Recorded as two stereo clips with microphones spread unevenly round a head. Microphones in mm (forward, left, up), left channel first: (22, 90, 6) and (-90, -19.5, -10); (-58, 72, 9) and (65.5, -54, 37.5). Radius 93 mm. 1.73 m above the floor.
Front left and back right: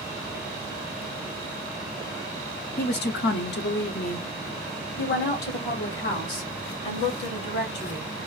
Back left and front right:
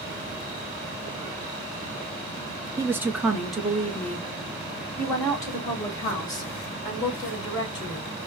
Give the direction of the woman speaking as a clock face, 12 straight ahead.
11 o'clock.